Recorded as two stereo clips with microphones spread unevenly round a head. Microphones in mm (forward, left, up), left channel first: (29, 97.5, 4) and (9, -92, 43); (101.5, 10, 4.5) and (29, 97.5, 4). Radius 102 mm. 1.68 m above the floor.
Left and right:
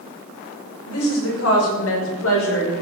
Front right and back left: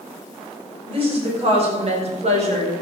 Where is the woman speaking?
95° left, 6.5 m; by 2.7 s 115° left, 5 m.